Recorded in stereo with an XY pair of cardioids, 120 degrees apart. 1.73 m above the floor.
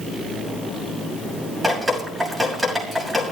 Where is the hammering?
I don't hear hammering.